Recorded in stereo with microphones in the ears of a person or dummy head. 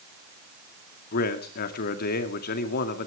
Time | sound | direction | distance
1.1 | a man speaking | 60° left (ahead or behind) | 2 m